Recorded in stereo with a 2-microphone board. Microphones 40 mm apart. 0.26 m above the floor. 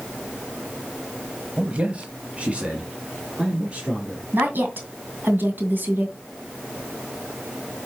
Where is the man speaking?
30° right (ahead or behind), 1.0 m; by 4.2 s 25° right (ahead or behind), 4.5 m.